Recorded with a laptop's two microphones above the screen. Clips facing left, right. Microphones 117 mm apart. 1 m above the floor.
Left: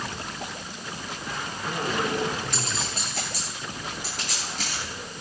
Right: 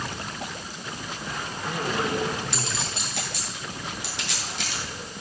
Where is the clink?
45° left (ahead or behind), 9 m.